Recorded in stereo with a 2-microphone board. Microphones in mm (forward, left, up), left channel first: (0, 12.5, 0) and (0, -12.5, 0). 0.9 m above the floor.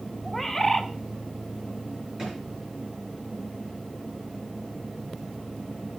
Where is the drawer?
20° right (ahead or behind), 8 m.